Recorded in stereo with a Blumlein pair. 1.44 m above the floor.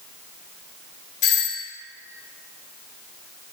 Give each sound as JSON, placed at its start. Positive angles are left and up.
{"t": 1.2, "sound": "a doorbell", "azimuth_deg": 50, "distance_m": 1.2}